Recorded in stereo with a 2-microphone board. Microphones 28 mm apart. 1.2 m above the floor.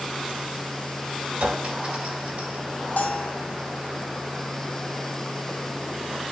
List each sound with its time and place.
1.4 s a clink: 55° right (ahead or behind), 2.5 m
3.0 s a bell: 70° left (ahead or behind), 2 m